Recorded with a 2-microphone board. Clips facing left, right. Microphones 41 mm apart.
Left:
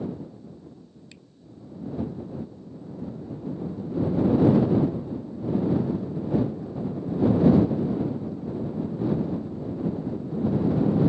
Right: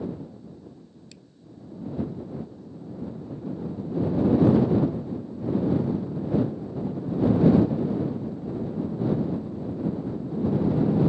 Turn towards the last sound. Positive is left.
turn(degrees=20)  # may be behind; listen again after turning